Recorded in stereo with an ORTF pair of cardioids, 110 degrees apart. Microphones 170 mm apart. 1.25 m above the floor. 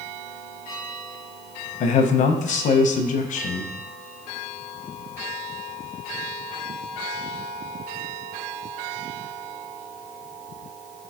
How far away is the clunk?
No clunk in this recording.